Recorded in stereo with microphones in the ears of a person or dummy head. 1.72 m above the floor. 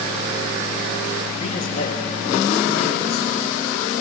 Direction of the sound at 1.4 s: 40° left (ahead or behind).